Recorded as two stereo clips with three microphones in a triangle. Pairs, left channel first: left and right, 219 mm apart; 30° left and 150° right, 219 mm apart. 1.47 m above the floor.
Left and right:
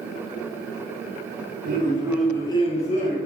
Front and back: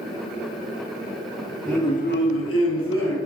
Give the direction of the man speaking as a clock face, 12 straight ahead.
2 o'clock.